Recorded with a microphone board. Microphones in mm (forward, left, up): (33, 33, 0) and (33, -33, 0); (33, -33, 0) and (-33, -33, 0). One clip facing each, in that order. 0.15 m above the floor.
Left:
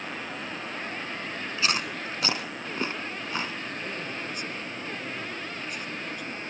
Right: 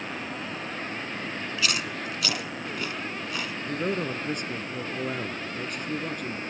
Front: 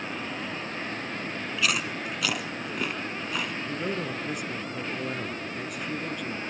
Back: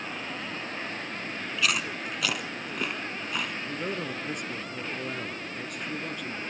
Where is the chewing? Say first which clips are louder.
Left 2 dB, even; 90° left, 1.2 m.